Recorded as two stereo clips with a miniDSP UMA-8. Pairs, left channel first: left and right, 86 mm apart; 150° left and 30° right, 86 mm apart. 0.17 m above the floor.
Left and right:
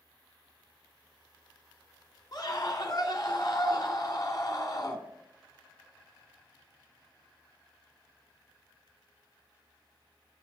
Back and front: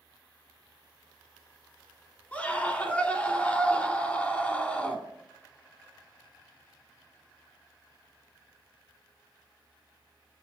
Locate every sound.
2.3 s a scream: 80° left, 2.5 m